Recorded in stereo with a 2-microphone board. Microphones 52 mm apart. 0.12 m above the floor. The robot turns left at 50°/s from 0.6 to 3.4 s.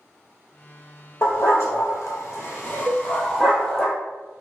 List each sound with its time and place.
1.2 s a dog barking: 60° left (ahead or behind), 1.3 m; by 3.9 s 5° left (ahead or behind), 1.3 m
2.9 s a cowbell: 40° right (ahead or behind), 1.3 m; by 3.0 s 30° right (ahead or behind), 1.3 m